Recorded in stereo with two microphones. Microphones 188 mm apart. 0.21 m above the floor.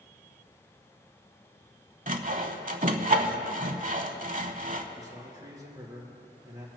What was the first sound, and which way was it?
Sawing, 45° right (ahead or behind).